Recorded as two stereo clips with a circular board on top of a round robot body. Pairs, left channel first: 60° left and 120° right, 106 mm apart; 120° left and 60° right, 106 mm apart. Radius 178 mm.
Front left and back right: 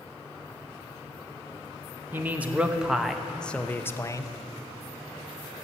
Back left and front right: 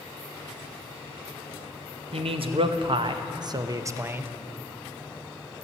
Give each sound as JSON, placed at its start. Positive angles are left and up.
{"t": 2.1, "sound": "a man speaking", "azimuth_deg": -50, "distance_m": 1.4}